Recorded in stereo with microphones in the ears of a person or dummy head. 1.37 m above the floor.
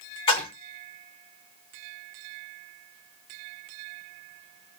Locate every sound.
0.3 s a splash: 30° left (ahead or behind), 1.9 m